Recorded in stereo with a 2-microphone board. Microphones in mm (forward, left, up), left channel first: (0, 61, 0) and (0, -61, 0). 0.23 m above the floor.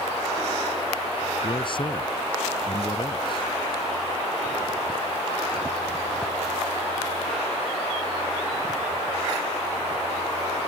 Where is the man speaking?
45° left (ahead or behind).